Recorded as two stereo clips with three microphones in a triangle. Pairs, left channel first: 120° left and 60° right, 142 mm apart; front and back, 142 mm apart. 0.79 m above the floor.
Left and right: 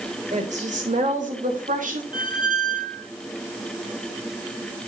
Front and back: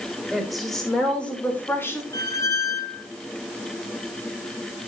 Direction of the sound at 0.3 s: 90° right.